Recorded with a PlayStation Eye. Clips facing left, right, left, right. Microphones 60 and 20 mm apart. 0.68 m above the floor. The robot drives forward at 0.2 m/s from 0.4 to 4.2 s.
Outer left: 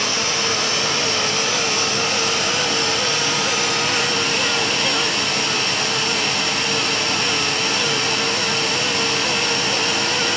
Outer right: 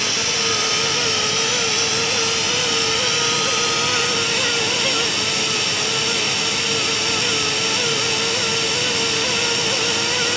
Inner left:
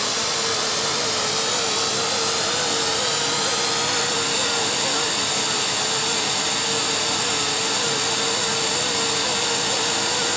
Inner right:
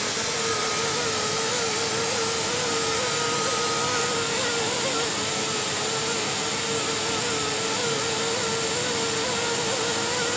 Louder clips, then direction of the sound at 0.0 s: Outer left 1 dB, inner left 4 dB; 50° left (ahead or behind).